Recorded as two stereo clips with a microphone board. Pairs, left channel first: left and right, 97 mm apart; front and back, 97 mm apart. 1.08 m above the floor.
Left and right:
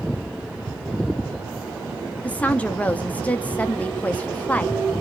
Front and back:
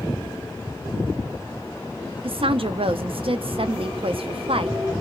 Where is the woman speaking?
165° left, 0.5 m.